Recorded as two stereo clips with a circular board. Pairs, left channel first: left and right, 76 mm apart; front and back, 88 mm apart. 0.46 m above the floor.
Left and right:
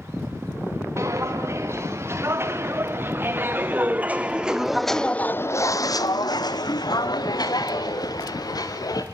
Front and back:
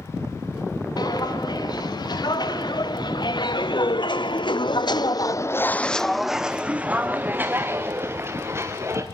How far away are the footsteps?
About 3.5 m.